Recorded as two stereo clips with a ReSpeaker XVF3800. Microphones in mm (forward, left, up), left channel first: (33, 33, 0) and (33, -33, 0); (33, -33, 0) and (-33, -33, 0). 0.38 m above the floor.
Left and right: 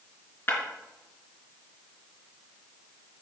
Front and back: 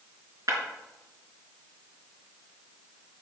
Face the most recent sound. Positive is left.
turn(degrees=145)